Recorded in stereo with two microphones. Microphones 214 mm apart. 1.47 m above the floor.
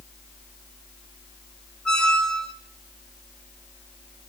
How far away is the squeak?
About 0.9 m.